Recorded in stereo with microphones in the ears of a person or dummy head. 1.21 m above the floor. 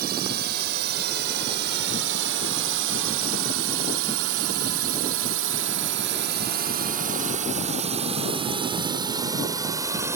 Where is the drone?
50° right (ahead or behind); by 10.2 s 15° right (ahead or behind).